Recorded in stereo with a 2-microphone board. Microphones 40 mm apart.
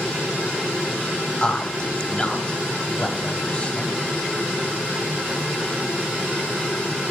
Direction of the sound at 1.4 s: 25° left (ahead or behind).